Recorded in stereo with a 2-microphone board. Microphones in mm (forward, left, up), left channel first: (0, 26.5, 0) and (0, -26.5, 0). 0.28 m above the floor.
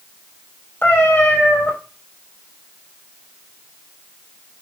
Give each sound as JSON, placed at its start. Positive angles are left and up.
{"t": 0.8, "sound": "a cat meowing", "side_deg": 40, "distance_m": 2.0}